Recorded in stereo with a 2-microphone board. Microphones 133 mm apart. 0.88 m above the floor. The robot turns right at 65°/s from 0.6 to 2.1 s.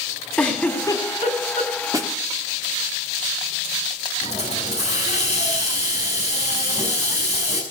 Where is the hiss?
55° left (ahead or behind), 5.5 m.